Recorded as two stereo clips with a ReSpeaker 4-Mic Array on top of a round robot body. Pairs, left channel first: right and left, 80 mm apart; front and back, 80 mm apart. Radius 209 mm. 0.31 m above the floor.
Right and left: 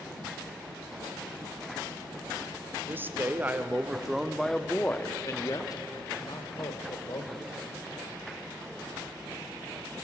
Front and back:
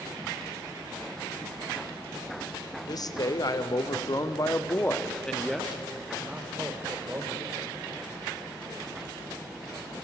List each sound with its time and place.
2.9 s a man speaking: 30° left, 2 m; by 7.6 s 120° right, 3 m